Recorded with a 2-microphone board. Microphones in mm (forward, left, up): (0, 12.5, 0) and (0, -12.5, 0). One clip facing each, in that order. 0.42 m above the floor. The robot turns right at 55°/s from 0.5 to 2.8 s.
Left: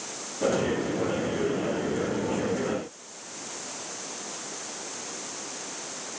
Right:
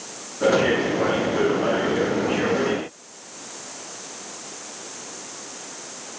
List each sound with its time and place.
Only background noise.